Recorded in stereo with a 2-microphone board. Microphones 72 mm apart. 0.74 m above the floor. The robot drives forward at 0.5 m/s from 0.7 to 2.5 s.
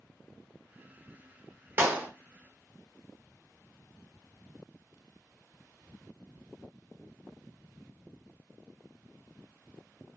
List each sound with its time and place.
1.8 s a clap: 30° right (ahead or behind), 0.8 m; by 2.1 s 25° right (ahead or behind), 0.9 m